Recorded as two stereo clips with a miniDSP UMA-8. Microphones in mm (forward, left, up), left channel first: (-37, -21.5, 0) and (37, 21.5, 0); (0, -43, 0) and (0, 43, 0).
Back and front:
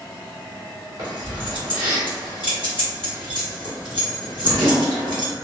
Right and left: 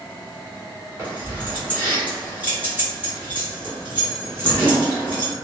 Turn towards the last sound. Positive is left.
turn(degrees=20)